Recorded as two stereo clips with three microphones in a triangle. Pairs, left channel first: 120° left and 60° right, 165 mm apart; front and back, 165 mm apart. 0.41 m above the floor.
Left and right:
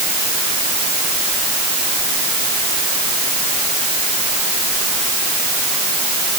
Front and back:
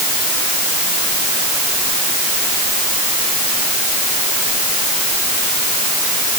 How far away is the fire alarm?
No fire alarm in this recording.